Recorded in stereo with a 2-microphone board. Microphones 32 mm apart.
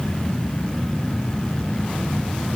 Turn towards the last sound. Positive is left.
No sound to turn to.